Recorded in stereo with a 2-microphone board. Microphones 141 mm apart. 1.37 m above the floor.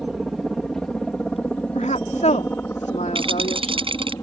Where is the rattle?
45° right (ahead or behind).